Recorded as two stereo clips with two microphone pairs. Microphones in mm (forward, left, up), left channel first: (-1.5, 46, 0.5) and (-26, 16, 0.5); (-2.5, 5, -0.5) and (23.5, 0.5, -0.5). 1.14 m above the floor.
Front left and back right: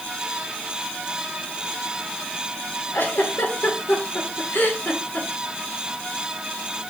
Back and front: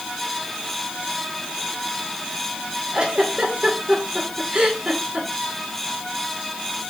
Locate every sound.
2.9 s a giggle: 40° left, 2.5 m